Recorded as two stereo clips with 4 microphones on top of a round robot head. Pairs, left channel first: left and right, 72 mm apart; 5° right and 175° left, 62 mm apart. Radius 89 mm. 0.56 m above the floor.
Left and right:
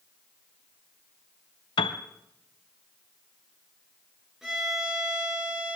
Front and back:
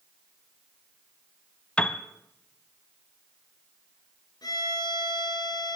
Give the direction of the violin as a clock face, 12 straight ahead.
12 o'clock.